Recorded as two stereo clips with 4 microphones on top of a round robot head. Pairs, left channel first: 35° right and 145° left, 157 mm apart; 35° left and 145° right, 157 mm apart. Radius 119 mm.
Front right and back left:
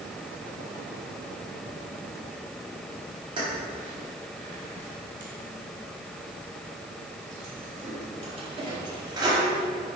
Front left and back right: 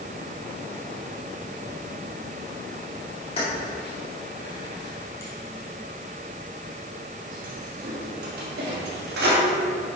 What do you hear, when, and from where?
3.4 s keys jangling: 85° left, 2 m; by 9.4 s 150° right, 1.9 m